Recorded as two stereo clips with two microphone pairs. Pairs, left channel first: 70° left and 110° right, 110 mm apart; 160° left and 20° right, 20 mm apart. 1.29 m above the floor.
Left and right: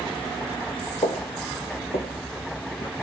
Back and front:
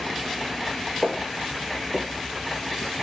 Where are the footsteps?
60° left, 3 m; by 2.9 s 115° left, 3 m.